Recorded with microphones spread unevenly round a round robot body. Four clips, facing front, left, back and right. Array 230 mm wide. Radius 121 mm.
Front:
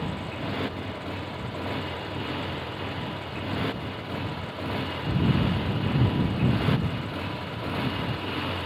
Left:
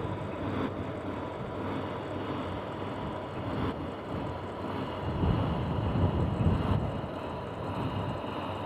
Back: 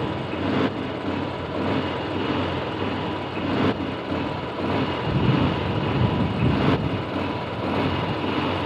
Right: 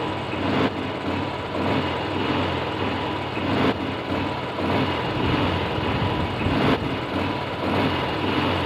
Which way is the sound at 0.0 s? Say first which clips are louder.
Right 9 dB, back 7 dB; 145° right.